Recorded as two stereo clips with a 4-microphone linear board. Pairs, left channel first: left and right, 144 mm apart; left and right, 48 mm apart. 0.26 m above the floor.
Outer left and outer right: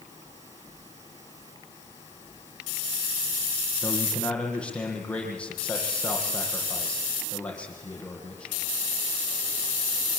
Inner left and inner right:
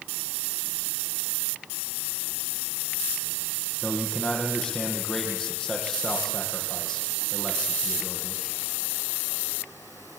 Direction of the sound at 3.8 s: 10° left (ahead or behind).